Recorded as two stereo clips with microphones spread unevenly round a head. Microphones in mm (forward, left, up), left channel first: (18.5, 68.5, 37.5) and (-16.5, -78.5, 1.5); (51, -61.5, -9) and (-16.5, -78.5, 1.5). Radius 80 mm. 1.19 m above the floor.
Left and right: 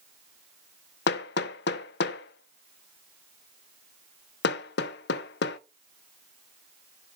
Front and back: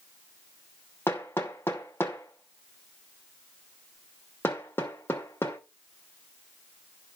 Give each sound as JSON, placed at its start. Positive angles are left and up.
{"t": 1.1, "sound": "hammering", "azimuth_deg": 80, "distance_m": 0.7}